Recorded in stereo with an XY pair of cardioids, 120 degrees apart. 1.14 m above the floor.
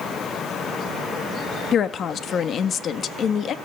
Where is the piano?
No piano in this recording.